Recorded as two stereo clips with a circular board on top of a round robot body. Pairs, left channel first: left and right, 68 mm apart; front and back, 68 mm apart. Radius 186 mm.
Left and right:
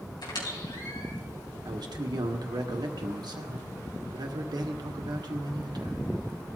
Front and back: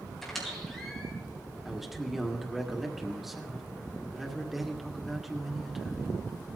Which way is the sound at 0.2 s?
90° left.